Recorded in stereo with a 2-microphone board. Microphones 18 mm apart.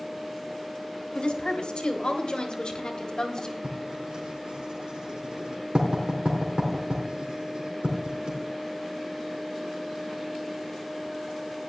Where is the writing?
75° right (ahead or behind), 4 m.